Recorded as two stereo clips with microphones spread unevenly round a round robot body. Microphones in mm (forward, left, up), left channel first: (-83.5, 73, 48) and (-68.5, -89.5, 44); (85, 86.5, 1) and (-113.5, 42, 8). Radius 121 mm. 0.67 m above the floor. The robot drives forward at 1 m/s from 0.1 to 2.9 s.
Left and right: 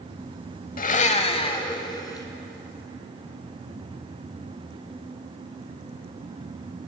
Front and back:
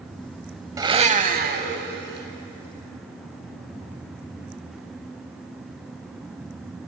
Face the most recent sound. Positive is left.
turn(degrees=165)